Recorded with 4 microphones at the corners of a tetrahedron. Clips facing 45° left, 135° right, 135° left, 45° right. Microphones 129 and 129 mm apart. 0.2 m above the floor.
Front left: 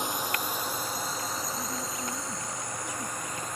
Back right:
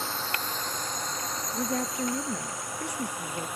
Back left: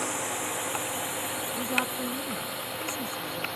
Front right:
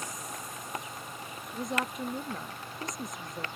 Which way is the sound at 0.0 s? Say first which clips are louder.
Front left 2 dB, back left 9 dB; 120° left.